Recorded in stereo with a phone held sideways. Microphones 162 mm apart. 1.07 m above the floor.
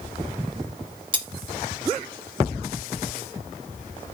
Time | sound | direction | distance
1.1 | cutlery clinking | 30° right (ahead or behind) | 1.0 m